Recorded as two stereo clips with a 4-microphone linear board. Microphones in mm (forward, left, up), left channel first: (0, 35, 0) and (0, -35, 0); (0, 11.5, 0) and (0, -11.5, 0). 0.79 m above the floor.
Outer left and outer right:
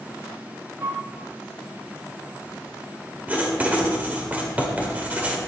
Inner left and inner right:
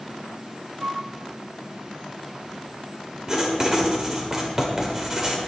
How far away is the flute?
About 3 m.